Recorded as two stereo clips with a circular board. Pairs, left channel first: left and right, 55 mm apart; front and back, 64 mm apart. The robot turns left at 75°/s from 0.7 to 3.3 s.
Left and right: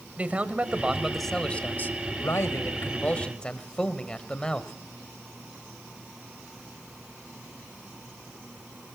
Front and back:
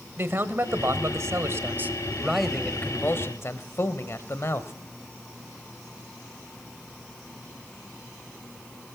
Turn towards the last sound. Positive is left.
turn(degrees=20)